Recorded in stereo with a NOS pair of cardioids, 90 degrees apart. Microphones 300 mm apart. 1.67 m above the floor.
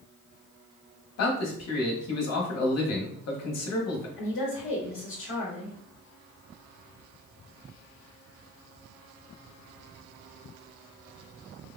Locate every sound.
1.2 s a man speaking: 60° left, 1.1 m
4.2 s a woman speaking: 45° left, 1.0 m